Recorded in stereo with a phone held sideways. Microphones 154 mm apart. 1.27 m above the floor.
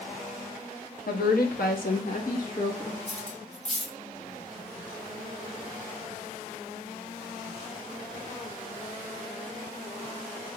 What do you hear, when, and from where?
1.1 s a woman speaking: 70° left (ahead or behind), 0.7 m; by 3.0 s 55° left (ahead or behind), 1.9 m
3.1 s cutlery clinking: 45° left (ahead or behind), 0.8 m